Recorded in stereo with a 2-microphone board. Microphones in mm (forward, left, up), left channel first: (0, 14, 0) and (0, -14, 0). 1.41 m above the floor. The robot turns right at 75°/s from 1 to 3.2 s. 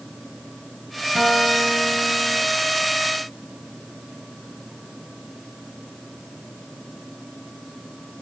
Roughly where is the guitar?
Ahead.